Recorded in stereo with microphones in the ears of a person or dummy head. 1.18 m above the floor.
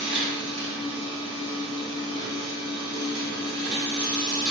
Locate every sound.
0.0 s a machine running: 60° right (ahead or behind), 1.7 m